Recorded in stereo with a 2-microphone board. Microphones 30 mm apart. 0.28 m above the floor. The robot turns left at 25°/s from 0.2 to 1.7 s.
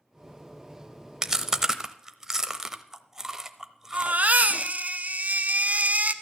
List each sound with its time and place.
1.2 s chewing: 20° right (ahead or behind), 0.8 m; by 4.7 s 15° right (ahead or behind), 0.8 m
3.9 s a baby crying: 55° right (ahead or behind), 0.7 m